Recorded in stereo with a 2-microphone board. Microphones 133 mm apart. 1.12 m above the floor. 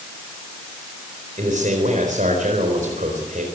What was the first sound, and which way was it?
A man speaking, 75° right (ahead or behind).